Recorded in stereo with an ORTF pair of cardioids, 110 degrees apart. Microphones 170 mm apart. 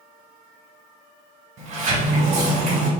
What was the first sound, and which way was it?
A sliding door, 50° right.